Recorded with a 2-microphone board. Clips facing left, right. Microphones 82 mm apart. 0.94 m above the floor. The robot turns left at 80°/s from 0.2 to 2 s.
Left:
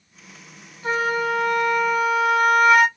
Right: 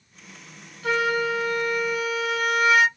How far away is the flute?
About 1.5 m.